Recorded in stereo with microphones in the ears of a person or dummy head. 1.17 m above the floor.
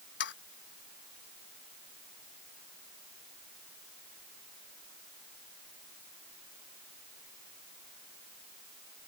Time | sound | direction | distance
0.2 | sawing | 60° left (ahead or behind) | ?